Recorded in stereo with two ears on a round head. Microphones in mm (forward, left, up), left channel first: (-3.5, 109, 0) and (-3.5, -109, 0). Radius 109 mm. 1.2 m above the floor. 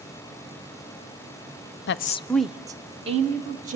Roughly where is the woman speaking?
Left.